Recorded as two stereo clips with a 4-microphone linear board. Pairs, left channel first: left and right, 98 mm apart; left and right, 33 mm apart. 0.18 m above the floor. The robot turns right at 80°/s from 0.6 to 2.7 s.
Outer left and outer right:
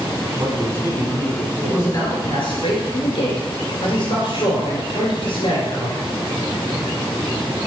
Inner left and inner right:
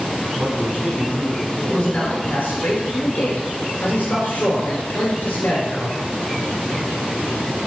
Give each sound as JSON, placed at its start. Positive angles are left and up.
{"t": 0.4, "sound": "a man speaking", "azimuth_deg": -80, "distance_m": 1.3}
{"t": 1.7, "sound": "a man speaking", "azimuth_deg": 20, "distance_m": 2.5}